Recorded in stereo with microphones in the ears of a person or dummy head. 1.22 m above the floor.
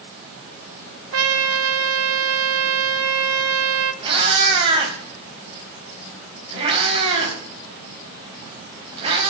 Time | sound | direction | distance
1.1 | a trumpet | 75° right (ahead or behind) | 1.0 m
4.0 | a cat meowing | 30° right (ahead or behind) | 4 m